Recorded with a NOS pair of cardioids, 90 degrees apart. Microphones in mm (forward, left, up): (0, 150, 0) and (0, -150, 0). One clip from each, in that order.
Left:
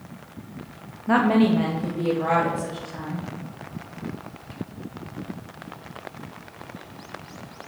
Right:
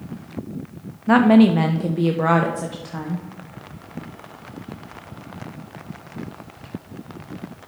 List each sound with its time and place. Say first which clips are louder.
1.1 s a woman speaking: right 5 dB; 25° right, 0.7 m; by 3.2 s 55° right, 1.6 m